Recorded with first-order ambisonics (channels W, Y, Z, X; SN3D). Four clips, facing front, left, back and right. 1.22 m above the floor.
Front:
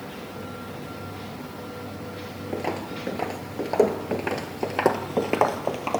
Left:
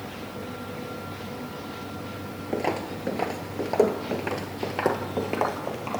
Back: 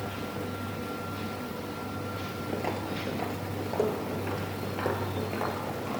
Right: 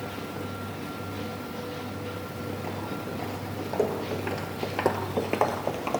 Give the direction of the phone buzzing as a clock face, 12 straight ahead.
No phone buzzing in this recording.